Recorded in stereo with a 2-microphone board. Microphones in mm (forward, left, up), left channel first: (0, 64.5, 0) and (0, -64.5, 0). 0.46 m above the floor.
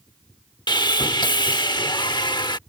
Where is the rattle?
I don't hear a rattle.